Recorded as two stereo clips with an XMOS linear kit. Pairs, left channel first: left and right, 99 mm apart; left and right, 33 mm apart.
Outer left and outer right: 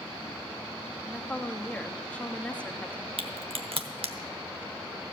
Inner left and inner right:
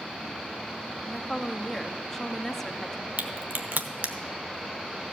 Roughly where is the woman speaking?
Centre.